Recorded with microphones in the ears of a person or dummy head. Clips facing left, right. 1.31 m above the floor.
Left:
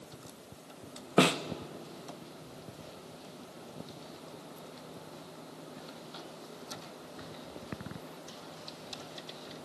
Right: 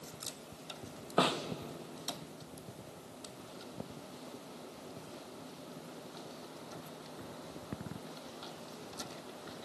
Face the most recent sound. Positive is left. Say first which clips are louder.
# left 6 dB
turn(degrees=30)  # may be behind; listen again after turning